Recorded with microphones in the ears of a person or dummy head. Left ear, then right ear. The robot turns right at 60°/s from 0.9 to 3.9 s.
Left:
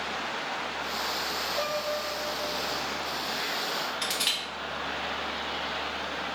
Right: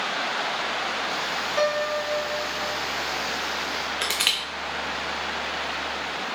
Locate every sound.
1.6 s a piano: 130° right, 0.8 m; by 2.8 s 60° right, 0.8 m
4.0 s crushing: 25° right (ahead or behind), 0.5 m